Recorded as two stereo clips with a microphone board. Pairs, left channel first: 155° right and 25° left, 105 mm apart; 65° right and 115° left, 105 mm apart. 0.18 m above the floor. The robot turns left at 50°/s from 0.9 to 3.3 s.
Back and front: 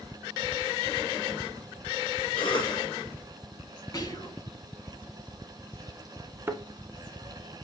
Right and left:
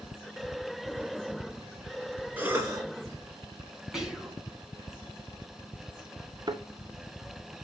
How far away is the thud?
About 0.9 m.